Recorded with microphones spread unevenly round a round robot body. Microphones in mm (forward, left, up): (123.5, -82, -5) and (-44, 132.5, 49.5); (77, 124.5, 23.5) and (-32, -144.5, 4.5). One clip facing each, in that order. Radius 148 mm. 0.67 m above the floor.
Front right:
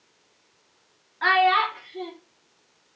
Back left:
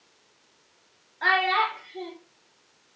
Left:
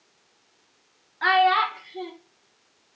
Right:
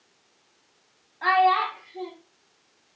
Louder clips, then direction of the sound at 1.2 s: Front right 4 dB, even; 10° left.